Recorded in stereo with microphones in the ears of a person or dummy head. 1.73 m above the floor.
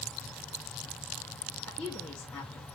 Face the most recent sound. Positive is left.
turn(degrees=5)  # may be behind; listen again after turning